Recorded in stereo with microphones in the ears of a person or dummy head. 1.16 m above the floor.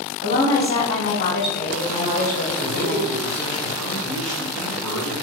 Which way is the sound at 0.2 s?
15° left (ahead or behind).